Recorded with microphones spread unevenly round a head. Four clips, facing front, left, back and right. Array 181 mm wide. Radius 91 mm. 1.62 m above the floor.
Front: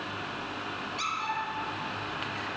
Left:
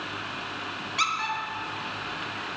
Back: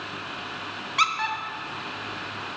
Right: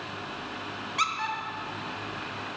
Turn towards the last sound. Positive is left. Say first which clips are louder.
# left 1 dB, back 9 dB
turn(degrees=-175)